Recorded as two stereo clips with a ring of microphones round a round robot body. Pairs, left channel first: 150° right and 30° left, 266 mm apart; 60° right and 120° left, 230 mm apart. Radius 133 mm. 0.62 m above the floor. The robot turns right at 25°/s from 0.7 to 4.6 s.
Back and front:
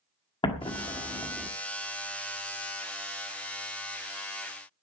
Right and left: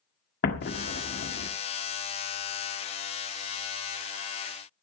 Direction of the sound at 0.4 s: 85° right.